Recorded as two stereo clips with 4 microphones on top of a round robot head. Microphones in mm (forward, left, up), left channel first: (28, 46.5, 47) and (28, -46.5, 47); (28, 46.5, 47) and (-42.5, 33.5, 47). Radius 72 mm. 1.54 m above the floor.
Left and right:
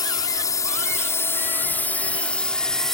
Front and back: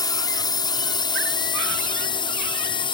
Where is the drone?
40° left; by 3.0 s 5° left.